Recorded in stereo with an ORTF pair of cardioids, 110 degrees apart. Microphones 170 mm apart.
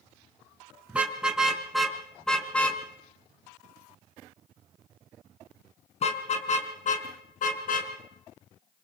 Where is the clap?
No clap in this recording.